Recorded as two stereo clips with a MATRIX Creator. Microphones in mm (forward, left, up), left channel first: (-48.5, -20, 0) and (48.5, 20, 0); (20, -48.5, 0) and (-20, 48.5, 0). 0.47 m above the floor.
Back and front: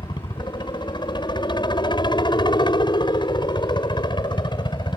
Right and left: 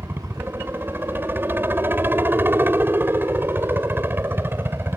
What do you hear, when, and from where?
0.0 s a helicopter: straight behind